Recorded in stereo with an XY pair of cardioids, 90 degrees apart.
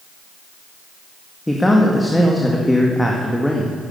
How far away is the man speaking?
About 1.8 m.